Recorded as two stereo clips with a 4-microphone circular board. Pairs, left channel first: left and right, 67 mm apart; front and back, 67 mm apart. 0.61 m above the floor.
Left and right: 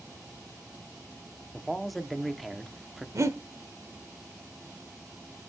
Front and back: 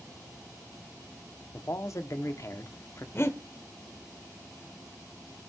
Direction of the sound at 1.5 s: Straight ahead.